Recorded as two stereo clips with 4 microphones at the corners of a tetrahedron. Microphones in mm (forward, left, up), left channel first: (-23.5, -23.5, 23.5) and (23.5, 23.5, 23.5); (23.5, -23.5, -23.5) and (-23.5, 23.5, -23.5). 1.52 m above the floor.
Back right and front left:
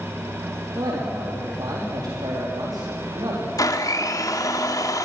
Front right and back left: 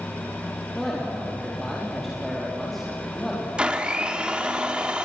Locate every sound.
0.8 s a man speaking: 40° left, 4 m
3.6 s a blender: 150° right, 1.9 m